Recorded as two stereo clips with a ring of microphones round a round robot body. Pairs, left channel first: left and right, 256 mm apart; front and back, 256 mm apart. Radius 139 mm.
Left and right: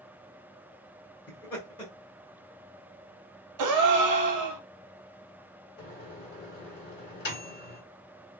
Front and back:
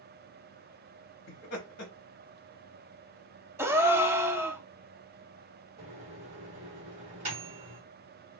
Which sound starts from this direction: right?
A gasp, at 3.6 s.